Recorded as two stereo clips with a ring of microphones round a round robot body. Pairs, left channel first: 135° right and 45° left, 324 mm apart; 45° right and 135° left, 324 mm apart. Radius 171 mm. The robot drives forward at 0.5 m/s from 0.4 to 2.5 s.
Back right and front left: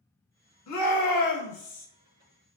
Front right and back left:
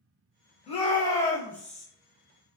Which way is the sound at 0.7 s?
110° right.